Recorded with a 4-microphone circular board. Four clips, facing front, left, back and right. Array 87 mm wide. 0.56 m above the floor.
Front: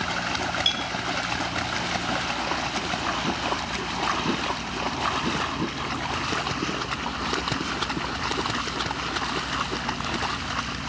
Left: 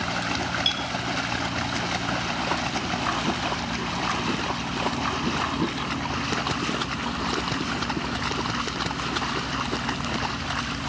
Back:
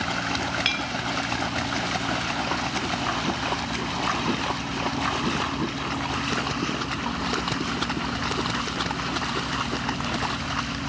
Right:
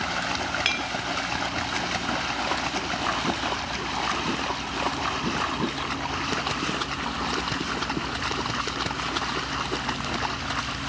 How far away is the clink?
About 0.7 m.